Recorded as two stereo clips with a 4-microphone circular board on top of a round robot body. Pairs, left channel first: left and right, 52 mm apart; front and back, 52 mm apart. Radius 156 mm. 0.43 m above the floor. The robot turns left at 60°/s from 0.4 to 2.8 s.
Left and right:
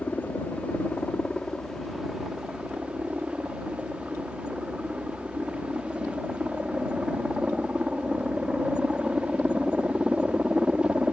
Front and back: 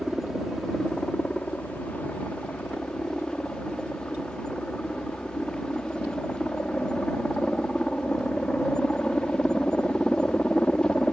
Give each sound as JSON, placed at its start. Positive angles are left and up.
{"t": 0.0, "sound": "a helicopter", "azimuth_deg": 90}